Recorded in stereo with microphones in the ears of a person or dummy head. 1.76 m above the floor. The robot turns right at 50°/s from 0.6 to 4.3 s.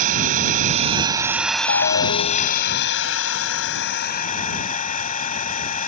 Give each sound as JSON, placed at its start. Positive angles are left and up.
{"t": 0.0, "sound": "an engine running", "azimuth_deg": -50}
{"t": 1.7, "sound": "a ringtone", "azimuth_deg": 60}